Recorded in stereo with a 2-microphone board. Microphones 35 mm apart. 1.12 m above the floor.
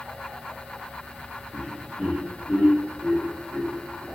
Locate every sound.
1.5 s laughter: 25° right (ahead or behind), 0.6 m; by 4.0 s 45° left (ahead or behind), 1.5 m